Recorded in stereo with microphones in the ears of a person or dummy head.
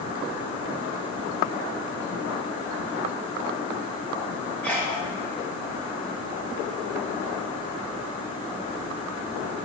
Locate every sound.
4.6 s a sneeze: 10° left (ahead or behind), 4 m